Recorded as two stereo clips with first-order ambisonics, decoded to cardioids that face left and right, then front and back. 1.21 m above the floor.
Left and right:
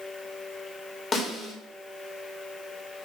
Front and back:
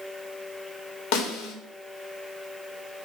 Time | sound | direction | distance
1.1 | a snare drum | 25° left | 1.6 m